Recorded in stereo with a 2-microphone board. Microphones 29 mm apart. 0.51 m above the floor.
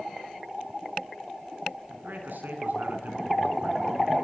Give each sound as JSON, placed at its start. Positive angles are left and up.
{"t": 1.9, "sound": "a man speaking", "side_deg": -80, "distance_m": 4.5}